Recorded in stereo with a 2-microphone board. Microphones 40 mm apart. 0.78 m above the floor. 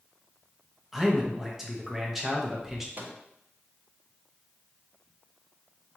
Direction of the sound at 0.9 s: 5° right (ahead or behind).